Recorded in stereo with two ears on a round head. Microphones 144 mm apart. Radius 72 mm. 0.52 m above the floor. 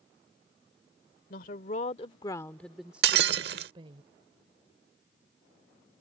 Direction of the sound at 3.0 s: 70° right (ahead or behind).